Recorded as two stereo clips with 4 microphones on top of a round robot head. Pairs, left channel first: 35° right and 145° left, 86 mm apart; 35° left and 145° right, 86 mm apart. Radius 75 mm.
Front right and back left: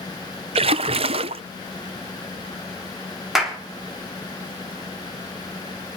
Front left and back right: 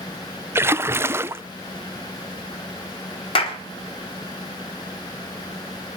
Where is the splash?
155° left, 0.5 m.